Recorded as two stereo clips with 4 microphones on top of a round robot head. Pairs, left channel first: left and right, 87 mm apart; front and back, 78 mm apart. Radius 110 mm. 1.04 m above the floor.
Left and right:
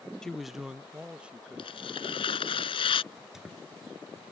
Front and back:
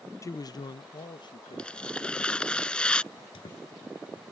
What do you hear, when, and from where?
0.2 s a man speaking: 10° left; by 2.6 s 15° right
1.6 s tearing paper: 75° left
3.1 s a squeak: 5° right